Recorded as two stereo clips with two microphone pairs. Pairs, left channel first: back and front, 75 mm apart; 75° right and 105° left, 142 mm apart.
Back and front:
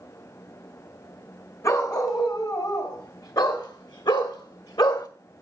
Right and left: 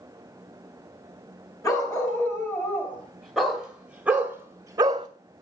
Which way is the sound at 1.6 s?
140° right.